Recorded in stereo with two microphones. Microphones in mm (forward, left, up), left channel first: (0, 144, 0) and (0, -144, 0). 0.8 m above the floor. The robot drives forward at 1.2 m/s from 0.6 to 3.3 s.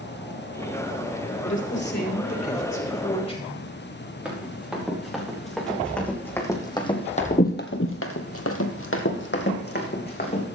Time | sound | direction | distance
1.4 | a woman speaking | 45° left (ahead or behind) | 1.8 m
4.2 | running footsteps | 5° right (ahead or behind) | 5 m